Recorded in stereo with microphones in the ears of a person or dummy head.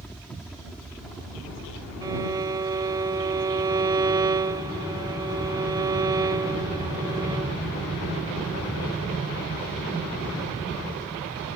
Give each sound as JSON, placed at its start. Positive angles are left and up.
{"t": 0.0, "sound": "a helicopter", "side_deg": 5}
{"t": 2.0, "sound": "a violin", "side_deg": -20}